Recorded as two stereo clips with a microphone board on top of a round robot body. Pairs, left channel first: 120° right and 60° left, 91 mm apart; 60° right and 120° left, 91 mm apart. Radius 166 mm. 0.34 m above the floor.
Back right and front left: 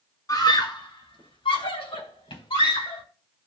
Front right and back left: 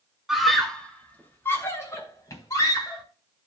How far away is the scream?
About 2.5 m.